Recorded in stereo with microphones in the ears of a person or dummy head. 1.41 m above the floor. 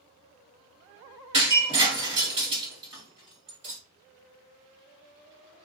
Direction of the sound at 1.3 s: 35° right (ahead or behind).